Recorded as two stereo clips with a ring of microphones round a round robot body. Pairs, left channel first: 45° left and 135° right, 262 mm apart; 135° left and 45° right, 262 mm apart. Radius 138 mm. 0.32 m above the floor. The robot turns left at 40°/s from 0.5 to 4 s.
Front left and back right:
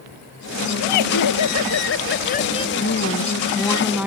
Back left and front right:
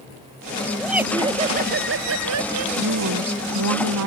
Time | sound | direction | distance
0.8 | laughter | 45° left | ?
2.8 | a woman speaking | straight ahead | ?